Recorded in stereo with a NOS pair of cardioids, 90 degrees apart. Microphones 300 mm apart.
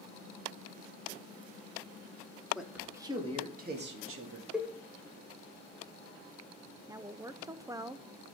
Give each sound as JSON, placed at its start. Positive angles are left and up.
{"t": 2.5, "sound": "a man speaking", "azimuth_deg": 0, "distance_m": 2.5}
{"t": 4.5, "sound": "a cowbell", "azimuth_deg": -5, "distance_m": 1.3}
{"t": 6.9, "sound": "a woman speaking", "azimuth_deg": -10, "distance_m": 0.7}